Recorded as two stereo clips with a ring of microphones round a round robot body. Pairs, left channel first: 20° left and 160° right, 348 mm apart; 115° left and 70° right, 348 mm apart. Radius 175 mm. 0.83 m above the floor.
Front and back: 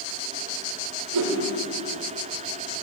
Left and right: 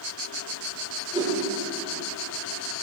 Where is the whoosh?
145° right, 3.5 m.